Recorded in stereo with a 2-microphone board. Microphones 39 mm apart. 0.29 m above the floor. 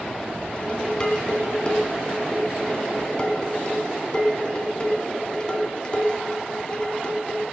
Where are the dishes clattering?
25° left (ahead or behind), 1.8 m.